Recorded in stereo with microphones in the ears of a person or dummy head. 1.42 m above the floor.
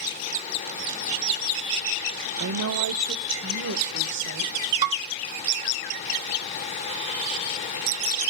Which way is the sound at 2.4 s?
65° right (ahead or behind).